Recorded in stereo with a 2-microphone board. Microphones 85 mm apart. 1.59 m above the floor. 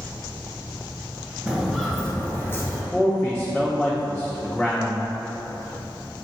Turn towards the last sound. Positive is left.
turn(degrees=10)  # may be behind; listen again after turning